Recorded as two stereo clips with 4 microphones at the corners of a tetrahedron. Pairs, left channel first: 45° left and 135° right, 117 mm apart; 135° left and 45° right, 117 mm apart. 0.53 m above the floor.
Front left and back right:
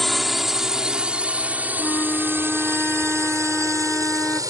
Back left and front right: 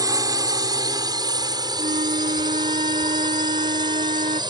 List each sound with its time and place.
0.0 s a drone: 45° right; by 4.5 s 85° right
1.8 s a flute: 35° right